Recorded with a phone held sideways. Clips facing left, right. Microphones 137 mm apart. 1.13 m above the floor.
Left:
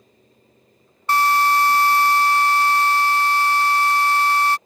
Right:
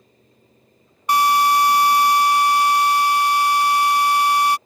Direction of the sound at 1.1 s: 15° right (ahead or behind).